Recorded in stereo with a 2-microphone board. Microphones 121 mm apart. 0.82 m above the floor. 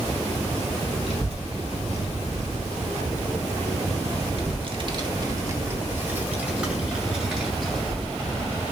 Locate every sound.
1.0 s a child speaking: 60° right (ahead or behind), 2.5 m; by 8.6 s 5° left (ahead or behind), 3 m